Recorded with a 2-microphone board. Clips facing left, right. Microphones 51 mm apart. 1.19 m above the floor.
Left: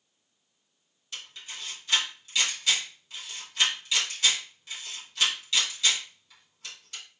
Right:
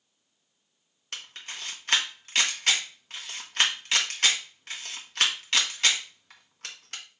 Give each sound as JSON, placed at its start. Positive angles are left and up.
{"t": 1.1, "sound": "a camera shutter", "side_deg": -55, "distance_m": 1.0}